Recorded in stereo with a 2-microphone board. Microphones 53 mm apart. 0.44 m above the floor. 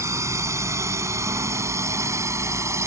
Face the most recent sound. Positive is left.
turn(degrees=-70)  # may be behind; listen again after turning